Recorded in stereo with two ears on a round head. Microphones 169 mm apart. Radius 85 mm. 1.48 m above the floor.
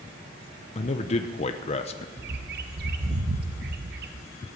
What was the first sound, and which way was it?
A man speaking, 35° left (ahead or behind).